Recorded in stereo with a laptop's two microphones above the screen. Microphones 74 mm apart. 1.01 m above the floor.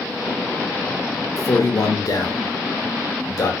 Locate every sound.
1.4 s a man speaking: 50° left (ahead or behind), 1.0 m